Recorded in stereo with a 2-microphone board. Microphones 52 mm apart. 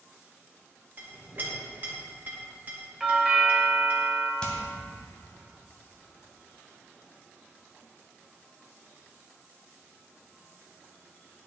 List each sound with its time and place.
1.0 s a clink: 35° right (ahead or behind), 2 m
3.0 s a doorbell: 10° right (ahead or behind), 1.2 m
4.4 s hammering: 20° left (ahead or behind), 2 m